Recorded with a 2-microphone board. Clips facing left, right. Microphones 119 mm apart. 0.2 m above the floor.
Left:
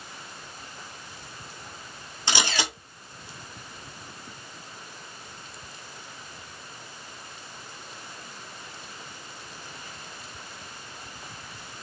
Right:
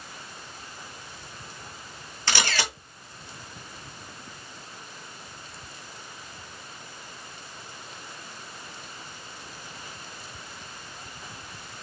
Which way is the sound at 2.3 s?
20° left (ahead or behind).